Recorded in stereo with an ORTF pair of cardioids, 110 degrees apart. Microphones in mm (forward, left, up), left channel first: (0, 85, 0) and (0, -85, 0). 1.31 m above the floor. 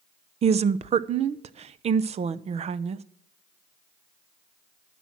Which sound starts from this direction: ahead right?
A woman speaking, at 0.4 s.